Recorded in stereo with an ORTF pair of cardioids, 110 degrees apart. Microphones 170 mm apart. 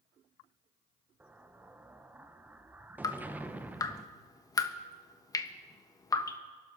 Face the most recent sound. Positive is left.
turn(degrees=20)